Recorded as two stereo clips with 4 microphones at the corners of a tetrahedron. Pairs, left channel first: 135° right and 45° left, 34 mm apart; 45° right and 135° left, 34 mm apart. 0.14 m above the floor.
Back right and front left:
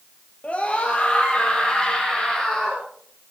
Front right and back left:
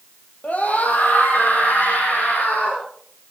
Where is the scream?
85° right, 3 m; by 2.8 s 60° right, 5 m.